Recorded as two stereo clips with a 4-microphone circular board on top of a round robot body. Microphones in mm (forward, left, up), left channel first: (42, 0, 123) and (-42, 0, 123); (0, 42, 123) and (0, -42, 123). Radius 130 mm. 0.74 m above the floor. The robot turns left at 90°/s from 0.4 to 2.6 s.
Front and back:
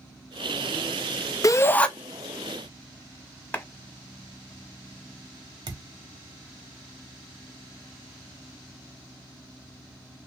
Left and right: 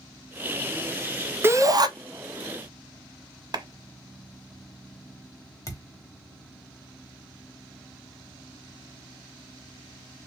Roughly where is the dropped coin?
No dropped coin in this recording.